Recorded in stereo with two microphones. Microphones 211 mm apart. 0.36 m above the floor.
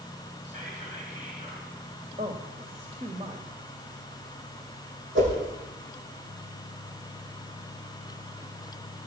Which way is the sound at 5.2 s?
65° right (ahead or behind).